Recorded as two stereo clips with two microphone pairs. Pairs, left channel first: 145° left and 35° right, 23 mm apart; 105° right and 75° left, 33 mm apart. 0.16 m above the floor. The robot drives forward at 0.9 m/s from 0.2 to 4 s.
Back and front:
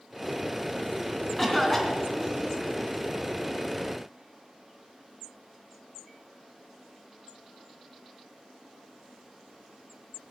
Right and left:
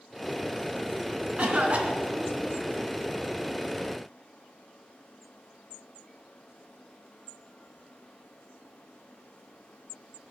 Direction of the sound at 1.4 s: 55° left.